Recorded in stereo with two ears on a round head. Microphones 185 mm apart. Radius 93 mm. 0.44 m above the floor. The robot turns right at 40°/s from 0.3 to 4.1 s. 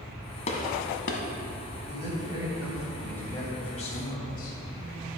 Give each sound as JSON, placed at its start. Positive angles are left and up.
{"t": 0.5, "sound": "a gunshot", "side_deg": 35, "distance_m": 1.2}
{"t": 1.9, "sound": "a man speaking", "azimuth_deg": -40, "distance_m": 2.5}